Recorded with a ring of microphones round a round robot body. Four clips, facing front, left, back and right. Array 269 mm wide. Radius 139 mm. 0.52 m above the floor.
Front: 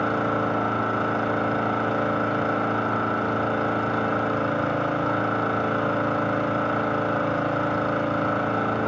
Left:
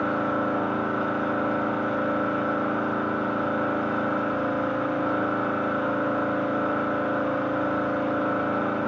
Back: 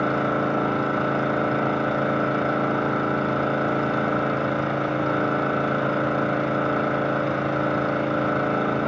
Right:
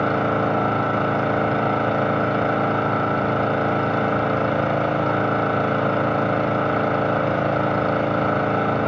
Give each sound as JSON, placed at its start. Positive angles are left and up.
{"t": 0.0, "sound": "an engine running", "azimuth_deg": -95, "distance_m": 2.5}